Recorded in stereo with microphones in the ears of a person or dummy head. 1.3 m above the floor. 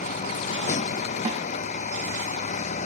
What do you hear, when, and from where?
0.0 s a vehicle: 35° left (ahead or behind)
1.2 s a snare drum: 35° right (ahead or behind)